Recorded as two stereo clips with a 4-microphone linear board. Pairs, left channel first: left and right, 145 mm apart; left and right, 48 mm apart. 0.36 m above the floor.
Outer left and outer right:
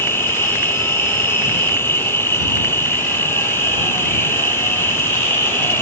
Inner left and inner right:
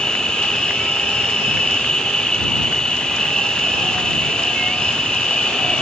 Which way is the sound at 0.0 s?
15° left (ahead or behind).